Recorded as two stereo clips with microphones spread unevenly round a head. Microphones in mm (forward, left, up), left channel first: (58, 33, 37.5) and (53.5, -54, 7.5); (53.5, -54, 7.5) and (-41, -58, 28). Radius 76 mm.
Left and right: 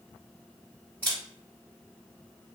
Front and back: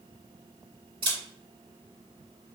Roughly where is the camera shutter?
Behind.